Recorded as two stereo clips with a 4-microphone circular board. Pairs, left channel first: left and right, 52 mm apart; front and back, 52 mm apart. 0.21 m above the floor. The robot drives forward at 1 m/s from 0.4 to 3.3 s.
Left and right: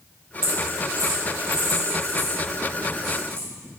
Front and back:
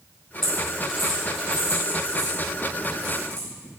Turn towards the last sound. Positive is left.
turn(degrees=-130)